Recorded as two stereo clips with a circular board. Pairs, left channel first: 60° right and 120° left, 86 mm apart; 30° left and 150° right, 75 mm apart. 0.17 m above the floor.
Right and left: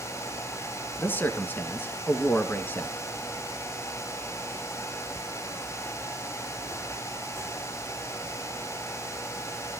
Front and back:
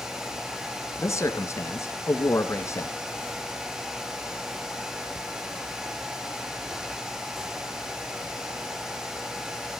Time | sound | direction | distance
1.0 | a man speaking | straight ahead | 1.6 m